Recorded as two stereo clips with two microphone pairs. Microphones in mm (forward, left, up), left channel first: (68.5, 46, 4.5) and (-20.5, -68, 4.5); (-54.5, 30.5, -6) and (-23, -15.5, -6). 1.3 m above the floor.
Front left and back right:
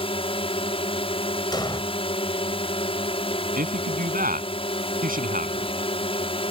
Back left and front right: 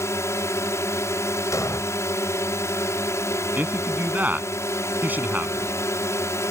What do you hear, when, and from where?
0.0 s a drone: 100° left
1.5 s an explosion: 115° left
3.6 s a man speaking: 115° right